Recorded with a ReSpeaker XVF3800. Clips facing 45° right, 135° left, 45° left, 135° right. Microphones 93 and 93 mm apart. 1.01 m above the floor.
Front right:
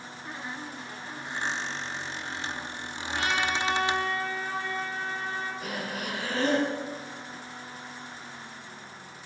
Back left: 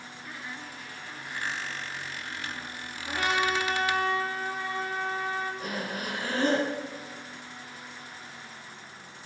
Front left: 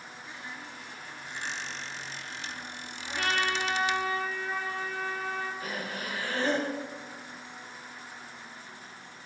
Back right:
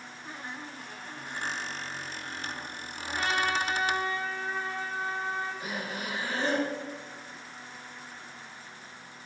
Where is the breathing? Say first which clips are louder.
Even, even; 160° left, 5 m.